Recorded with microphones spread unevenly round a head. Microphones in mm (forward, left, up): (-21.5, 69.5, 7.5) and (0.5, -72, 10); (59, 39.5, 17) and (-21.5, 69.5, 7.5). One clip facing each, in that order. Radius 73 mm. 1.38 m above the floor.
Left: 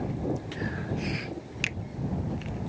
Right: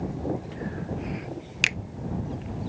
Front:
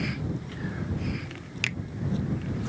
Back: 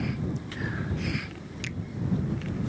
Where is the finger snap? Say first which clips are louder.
Right 3 dB, front 4 dB; 60° right.